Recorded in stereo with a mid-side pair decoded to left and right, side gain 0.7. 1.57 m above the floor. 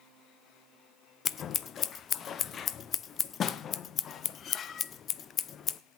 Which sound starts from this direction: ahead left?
Scissors, at 1.2 s.